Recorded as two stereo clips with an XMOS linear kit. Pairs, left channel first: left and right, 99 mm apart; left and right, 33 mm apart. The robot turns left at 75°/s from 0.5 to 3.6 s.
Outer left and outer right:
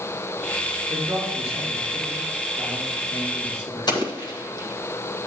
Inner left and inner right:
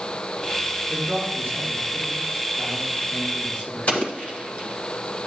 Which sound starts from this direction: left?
An explosion, at 3.9 s.